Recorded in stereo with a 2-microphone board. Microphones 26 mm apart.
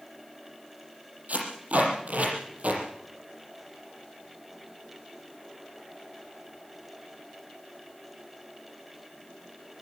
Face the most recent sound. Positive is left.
turn(degrees=-70)  # may be behind; listen again after turning